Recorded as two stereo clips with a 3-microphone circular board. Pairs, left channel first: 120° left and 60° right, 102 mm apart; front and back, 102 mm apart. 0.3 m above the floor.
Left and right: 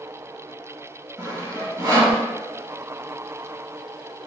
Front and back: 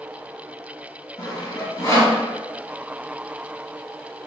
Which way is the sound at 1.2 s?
20° right.